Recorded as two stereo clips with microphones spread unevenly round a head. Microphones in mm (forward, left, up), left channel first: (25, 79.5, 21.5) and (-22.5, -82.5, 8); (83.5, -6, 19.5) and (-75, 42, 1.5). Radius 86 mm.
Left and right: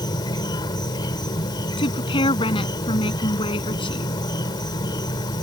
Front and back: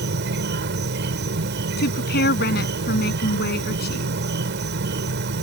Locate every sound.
0.0 s an insect: 140° left
1.8 s a woman speaking: 10° left